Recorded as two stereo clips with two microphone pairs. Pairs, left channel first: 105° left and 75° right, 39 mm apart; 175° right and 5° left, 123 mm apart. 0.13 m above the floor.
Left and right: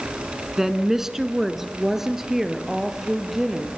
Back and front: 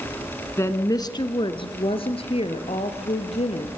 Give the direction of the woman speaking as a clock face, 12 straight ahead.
5 o'clock.